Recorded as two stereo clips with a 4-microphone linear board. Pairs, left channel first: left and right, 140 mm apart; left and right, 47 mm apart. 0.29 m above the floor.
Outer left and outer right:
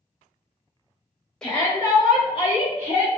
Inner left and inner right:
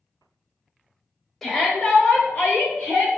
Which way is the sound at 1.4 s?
5° left (ahead or behind).